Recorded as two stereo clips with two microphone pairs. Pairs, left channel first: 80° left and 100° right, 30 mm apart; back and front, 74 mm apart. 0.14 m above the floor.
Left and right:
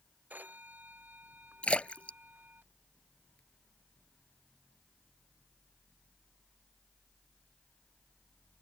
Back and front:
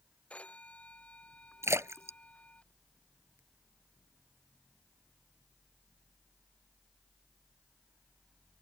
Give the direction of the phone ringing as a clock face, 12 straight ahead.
4 o'clock.